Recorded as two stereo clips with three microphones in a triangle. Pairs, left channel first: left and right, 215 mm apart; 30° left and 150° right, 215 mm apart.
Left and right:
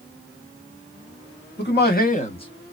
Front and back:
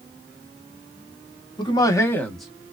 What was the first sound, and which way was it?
A man speaking, 90° left.